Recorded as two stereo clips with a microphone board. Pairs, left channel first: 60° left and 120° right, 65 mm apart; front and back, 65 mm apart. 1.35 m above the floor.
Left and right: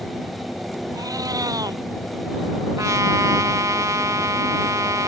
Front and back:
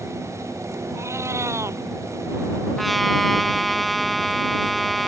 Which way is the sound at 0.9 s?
135° right.